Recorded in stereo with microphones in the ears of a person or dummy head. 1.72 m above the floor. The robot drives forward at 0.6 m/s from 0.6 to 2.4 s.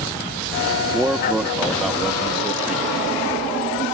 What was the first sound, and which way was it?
A man speaking, 5° right (ahead or behind).